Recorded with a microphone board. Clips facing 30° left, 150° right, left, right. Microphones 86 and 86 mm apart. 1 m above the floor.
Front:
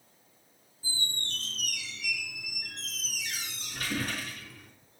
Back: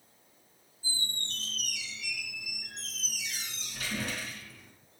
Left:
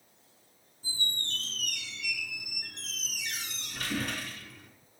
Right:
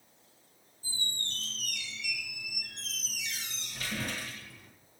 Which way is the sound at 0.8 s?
70° left.